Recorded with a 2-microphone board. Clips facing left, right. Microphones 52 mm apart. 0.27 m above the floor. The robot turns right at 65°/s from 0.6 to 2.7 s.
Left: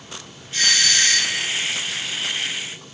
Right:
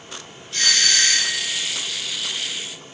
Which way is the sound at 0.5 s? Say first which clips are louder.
Left 1 dB; 150° left.